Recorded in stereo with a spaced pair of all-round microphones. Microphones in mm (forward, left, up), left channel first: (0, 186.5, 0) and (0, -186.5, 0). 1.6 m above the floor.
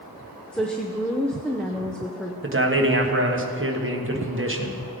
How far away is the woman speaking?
About 0.7 m.